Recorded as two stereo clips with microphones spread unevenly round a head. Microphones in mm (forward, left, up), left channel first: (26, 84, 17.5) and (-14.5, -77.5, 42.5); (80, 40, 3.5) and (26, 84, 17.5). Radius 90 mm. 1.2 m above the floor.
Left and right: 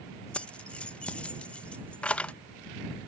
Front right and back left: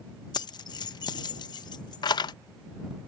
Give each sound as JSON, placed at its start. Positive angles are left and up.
{"t": 0.3, "sound": "keys jangling", "azimuth_deg": -10}